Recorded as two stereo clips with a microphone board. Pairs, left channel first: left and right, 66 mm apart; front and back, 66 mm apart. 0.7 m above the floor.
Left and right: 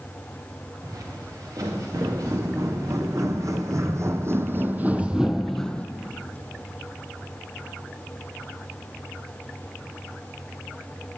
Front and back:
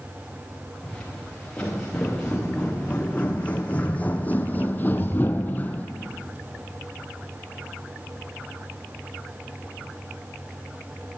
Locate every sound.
0.8 s footsteps: 75° right, 3 m; by 5.9 s 40° left, 0.8 m